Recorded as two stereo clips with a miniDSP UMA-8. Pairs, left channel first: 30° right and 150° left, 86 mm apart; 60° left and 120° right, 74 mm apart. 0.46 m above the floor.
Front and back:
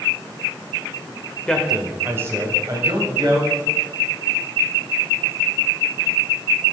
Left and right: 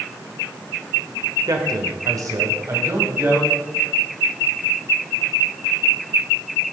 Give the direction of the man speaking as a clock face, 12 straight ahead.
4 o'clock.